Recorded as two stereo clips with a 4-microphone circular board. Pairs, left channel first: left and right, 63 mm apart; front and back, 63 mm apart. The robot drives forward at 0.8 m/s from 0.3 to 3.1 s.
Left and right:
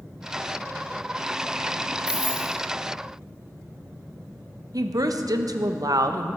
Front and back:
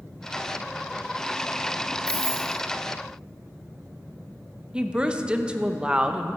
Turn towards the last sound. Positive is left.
turn(degrees=-105)